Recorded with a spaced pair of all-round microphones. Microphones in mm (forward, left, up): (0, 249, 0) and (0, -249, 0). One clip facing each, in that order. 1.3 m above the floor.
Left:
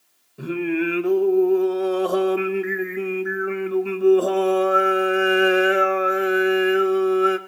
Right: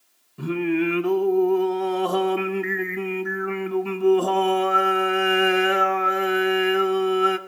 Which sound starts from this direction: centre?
Singing, at 0.4 s.